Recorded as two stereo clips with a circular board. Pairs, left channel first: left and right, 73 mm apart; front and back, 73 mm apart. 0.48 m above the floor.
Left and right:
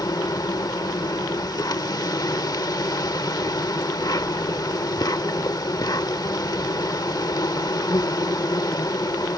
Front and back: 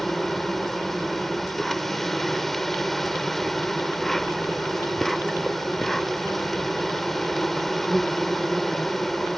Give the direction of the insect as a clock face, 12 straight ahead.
9 o'clock.